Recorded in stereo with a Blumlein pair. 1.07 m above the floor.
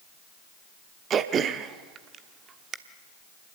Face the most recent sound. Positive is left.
turn(degrees=-25)